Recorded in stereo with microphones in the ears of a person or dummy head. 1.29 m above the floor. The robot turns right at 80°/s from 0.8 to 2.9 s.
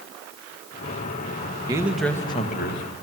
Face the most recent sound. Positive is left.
turn(degrees=75)